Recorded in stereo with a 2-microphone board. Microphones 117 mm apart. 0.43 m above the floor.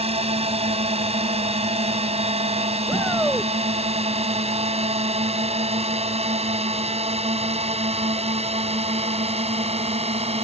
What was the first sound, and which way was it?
A drone, 65° right (ahead or behind).